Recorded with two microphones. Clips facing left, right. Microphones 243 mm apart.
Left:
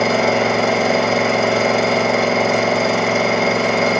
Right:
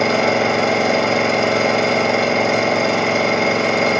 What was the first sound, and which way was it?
An engine running, centre (ahead or behind).